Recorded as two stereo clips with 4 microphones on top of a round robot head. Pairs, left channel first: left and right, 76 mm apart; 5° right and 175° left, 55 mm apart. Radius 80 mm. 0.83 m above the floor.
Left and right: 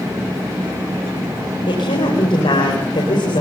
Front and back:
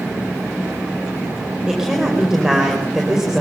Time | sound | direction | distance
1.7 | a woman speaking | 95° left | 5 m